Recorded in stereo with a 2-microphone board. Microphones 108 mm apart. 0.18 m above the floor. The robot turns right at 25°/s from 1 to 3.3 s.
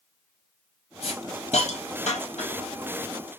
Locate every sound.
1.0 s a hiss: 65° left (ahead or behind), 1.1 m; by 2.7 s 70° left (ahead or behind), 1.1 m